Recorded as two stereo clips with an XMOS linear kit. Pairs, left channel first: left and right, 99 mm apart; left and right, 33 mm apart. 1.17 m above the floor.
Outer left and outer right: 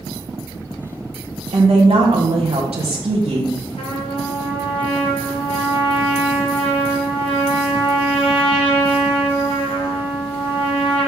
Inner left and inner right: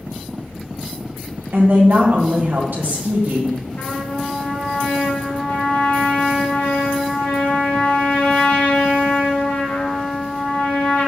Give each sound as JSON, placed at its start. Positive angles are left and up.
{"t": 1.5, "sound": "a woman speaking", "side_deg": -75, "distance_m": 1.3}
{"t": 3.8, "sound": "a trumpet", "side_deg": 65, "distance_m": 3.5}